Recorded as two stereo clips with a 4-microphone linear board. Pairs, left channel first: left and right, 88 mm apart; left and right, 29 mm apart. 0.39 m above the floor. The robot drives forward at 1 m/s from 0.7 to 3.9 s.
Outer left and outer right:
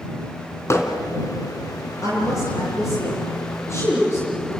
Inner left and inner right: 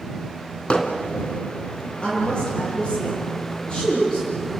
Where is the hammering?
35° left (ahead or behind), 2.5 m.